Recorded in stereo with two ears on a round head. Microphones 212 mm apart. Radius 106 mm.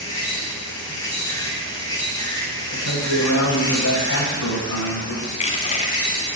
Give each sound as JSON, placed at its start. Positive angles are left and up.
{"t": 0.0, "sound": "an insect", "side_deg": 15, "distance_m": 4.0}
{"t": 2.7, "sound": "a man speaking", "side_deg": 65, "distance_m": 2.5}
{"t": 5.3, "sound": "crushing", "side_deg": 30, "distance_m": 1.7}